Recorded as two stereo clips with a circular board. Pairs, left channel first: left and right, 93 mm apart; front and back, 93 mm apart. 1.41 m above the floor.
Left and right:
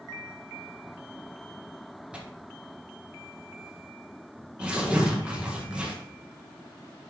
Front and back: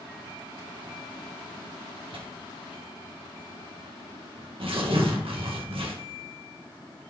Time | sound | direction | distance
2.1 | tearing paper | 170° right | 1.6 m